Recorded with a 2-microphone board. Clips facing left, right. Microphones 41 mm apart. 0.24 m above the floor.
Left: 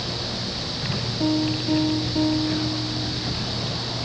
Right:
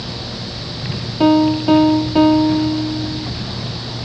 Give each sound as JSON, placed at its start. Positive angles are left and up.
{"t": 1.2, "sound": "a piano", "side_deg": -80}